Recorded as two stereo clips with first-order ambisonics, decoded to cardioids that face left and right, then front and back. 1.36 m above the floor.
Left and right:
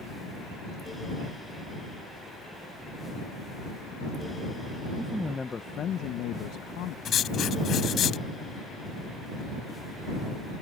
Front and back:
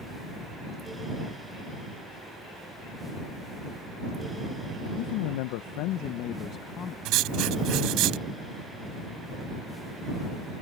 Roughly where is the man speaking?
Ahead.